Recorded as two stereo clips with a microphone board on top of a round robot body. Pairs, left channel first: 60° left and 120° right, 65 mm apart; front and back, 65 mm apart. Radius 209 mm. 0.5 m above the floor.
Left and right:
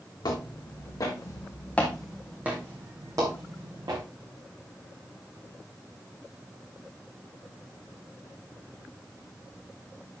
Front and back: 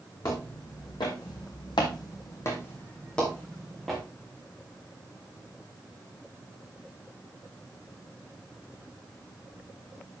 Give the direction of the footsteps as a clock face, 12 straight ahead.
11 o'clock.